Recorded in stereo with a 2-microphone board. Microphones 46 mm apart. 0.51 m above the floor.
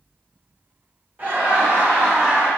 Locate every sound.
1.2 s laughter: 40° right (ahead or behind), 1.4 m; by 2.5 s 30° right (ahead or behind), 1.5 m